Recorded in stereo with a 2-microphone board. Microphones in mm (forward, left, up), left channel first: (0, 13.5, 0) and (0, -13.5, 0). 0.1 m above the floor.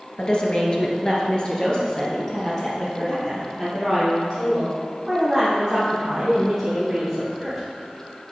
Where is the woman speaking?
35° left (ahead or behind), 1.9 m; by 7.6 s 5° left (ahead or behind), 6.5 m.